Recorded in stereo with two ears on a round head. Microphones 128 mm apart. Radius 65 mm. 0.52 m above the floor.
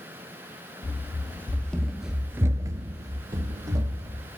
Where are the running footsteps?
15° left (ahead or behind), 1.4 m; by 4.2 s 25° right (ahead or behind), 1.8 m.